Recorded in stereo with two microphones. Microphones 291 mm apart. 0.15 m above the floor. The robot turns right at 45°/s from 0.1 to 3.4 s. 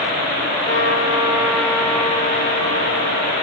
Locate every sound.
0.7 s a trumpet: 40° right, 0.9 m; by 3.3 s 80° left, 0.9 m